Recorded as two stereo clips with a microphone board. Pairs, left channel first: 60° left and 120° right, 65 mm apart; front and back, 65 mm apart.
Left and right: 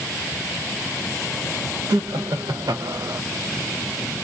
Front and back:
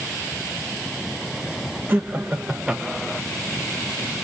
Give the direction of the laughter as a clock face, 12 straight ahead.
4 o'clock.